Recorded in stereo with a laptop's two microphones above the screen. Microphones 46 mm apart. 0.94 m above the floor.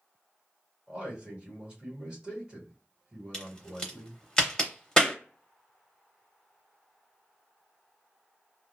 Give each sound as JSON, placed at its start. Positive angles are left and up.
{"t": 0.9, "sound": "a man speaking", "side_deg": -25, "distance_m": 1.4}
{"t": 3.3, "sound": "a crack", "side_deg": 15, "distance_m": 0.7}